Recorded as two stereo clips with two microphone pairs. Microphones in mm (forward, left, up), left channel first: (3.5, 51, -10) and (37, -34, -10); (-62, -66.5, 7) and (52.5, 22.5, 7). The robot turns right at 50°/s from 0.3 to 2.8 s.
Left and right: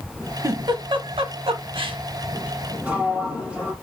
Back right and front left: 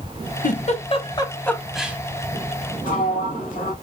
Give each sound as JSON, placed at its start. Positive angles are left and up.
{"t": 0.4, "sound": "a giggle", "azimuth_deg": -120, "distance_m": 0.5}
{"t": 2.8, "sound": "a sliding door", "azimuth_deg": -145, "distance_m": 1.1}